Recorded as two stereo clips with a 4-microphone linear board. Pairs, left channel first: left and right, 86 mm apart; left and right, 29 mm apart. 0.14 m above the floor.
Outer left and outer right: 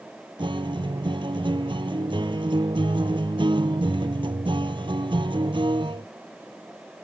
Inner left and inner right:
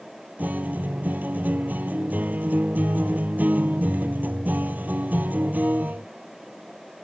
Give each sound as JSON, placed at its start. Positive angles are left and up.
{"t": 0.4, "sound": "a guitar", "side_deg": -70}